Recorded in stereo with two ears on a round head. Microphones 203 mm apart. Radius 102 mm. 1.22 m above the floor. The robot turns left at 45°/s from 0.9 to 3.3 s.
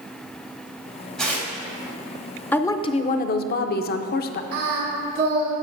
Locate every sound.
1.2 s tearing paper: 5° left (ahead or behind), 2 m; by 1.5 s 15° left (ahead or behind), 2 m
2.5 s a woman speaking: 170° left, 0.5 m; by 4.4 s 135° left, 0.5 m
4.5 s singing: 75° right (ahead or behind), 2.5 m